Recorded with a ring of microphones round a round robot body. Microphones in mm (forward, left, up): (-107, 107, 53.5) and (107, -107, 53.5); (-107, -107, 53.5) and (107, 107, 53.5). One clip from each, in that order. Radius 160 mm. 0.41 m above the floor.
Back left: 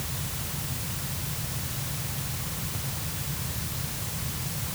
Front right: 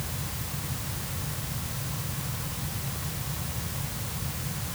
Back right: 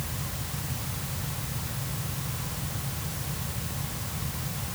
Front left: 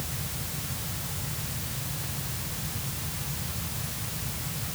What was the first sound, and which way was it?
Only background noise.